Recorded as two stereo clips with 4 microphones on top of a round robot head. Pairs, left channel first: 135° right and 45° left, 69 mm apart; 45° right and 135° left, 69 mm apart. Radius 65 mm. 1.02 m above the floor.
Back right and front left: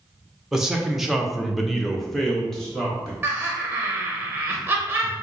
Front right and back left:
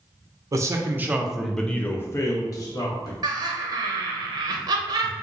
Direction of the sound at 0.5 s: 130° left.